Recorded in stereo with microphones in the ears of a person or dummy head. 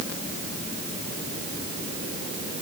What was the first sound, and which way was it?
Only background noise.